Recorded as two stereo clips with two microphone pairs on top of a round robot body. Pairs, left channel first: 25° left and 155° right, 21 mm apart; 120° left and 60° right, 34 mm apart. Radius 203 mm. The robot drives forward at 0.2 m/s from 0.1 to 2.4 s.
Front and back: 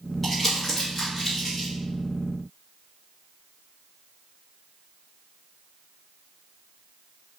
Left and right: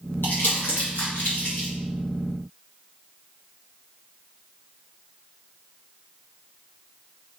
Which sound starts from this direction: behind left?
Crumpling, at 0.2 s.